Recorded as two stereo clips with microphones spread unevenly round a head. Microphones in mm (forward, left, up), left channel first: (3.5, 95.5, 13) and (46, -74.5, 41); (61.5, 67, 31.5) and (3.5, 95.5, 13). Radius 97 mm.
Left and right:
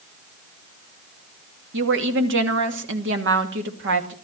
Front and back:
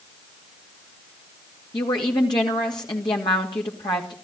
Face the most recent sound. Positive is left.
turn(degrees=-60)